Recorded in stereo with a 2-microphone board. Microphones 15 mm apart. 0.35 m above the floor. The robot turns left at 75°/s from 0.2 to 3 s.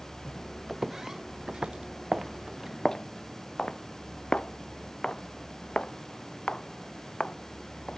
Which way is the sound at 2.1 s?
45° right (ahead or behind).